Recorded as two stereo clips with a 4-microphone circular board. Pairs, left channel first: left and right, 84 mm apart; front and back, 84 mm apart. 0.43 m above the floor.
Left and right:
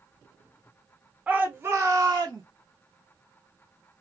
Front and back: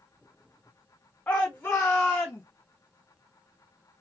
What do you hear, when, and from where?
1.3 s a shout: 50° right, 0.9 m; by 2.4 s 75° right, 1.5 m